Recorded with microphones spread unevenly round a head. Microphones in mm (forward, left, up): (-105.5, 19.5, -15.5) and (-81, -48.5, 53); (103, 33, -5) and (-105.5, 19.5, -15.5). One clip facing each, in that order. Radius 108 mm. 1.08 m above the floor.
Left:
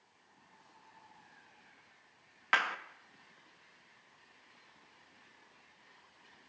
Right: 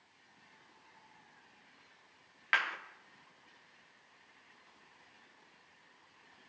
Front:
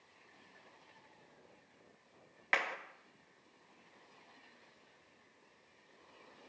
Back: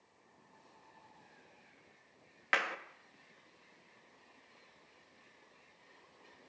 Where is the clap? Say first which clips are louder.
Left 2 dB, back 1 dB; 105° left, 1.7 m.